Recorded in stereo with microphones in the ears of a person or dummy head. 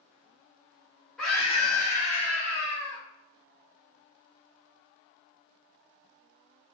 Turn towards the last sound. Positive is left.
turn(degrees=-45)  # may be behind; listen again after turning